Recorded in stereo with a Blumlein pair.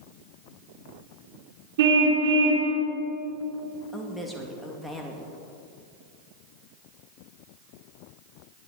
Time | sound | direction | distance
1.8 | a car horn | 55° right | 3 m
3.9 | a woman speaking | straight ahead | 2.5 m